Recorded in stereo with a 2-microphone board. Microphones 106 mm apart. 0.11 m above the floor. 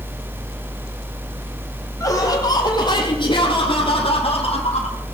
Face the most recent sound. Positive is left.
turn(degrees=70)  # may be behind; listen again after turning